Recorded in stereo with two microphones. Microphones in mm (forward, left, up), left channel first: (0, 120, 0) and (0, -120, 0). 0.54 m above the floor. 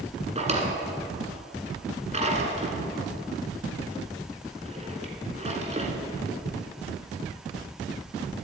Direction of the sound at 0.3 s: 25° right (ahead or behind).